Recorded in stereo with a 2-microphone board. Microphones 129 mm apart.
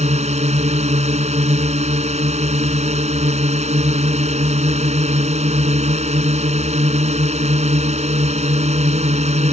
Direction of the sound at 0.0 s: 60° right (ahead or behind).